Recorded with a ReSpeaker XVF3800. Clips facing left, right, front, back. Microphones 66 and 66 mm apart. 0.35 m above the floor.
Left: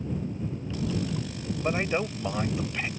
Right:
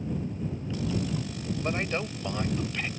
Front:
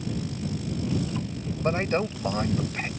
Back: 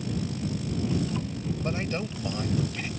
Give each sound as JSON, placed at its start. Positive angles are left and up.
{"t": 1.6, "sound": "a man speaking", "azimuth_deg": 15}